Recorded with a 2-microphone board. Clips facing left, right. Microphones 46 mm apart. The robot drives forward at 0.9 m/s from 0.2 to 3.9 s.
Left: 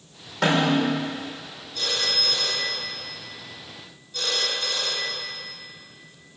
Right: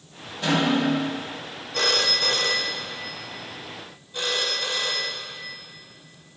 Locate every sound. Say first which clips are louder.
0.4 s a snare drum: left 1 dB; 80° left, 5 m
1.7 s a phone ringing: right 4 dB; 80° right, 0.8 m; by 5.3 s 20° right (ahead or behind), 2 m